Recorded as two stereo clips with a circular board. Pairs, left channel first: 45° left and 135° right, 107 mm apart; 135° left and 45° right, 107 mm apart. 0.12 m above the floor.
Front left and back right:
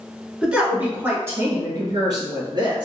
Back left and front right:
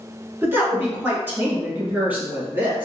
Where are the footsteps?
No footsteps in this recording.